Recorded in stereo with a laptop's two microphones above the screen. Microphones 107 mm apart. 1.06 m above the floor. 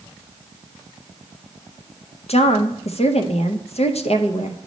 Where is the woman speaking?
65° left (ahead or behind), 0.6 m.